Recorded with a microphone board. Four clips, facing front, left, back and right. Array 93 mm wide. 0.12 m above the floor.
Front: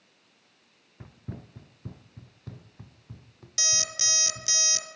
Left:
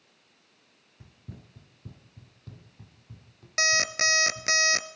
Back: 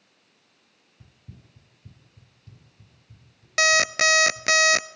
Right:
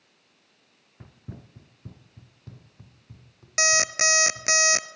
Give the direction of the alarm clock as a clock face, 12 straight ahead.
6 o'clock.